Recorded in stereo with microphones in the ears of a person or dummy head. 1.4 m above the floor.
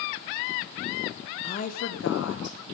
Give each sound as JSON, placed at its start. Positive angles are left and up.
{"t": 1.4, "sound": "a woman speaking", "side_deg": 35, "distance_m": 1.0}